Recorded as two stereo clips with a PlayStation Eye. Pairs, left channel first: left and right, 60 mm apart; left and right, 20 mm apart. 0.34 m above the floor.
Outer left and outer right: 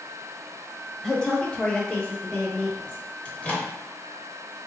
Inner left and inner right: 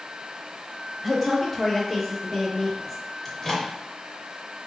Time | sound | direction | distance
1.0 | a woman speaking | 10° left (ahead or behind) | 1.1 m
3.2 | a microwave | 25° left (ahead or behind) | 0.8 m